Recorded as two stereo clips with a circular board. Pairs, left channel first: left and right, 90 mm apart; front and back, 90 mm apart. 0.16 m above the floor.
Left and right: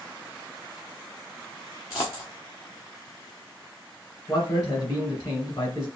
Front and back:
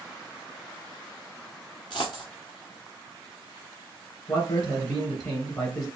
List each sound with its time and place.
1.9 s a dropped coin: 35° left, 1.9 m
4.3 s a man speaking: 40° left, 3 m